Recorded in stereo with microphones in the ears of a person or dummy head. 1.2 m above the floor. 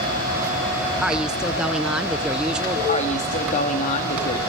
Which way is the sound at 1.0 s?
Centre (ahead or behind).